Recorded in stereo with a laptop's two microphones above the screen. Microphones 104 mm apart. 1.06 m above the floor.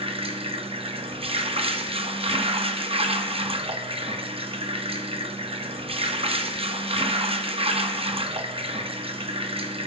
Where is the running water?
65° right (ahead or behind), 0.7 m.